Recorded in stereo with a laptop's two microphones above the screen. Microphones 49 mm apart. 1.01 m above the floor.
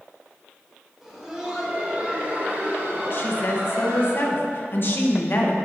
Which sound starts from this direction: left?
A woman speaking, at 3.1 s.